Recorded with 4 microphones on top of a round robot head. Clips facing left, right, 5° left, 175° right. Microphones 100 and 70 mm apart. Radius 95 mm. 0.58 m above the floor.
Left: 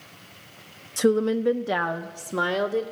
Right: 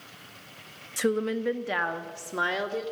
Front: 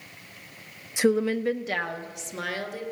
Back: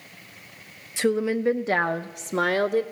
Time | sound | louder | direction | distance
1.0 | a woman speaking | left 6 dB, even | 55° left | 0.6 m